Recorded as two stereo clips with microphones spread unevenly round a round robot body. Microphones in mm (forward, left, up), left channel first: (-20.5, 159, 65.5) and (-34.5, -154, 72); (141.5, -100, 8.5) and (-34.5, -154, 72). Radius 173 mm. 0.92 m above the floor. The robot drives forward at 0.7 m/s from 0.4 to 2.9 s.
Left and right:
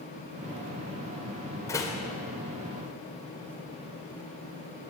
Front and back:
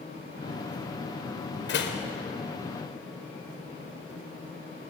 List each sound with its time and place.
1.7 s a door slam: 5° left, 3 m